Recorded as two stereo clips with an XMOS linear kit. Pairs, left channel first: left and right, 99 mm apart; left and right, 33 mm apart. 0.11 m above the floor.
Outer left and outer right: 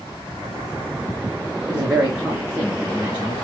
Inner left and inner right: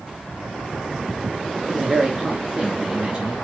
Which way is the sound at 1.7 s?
10° right (ahead or behind).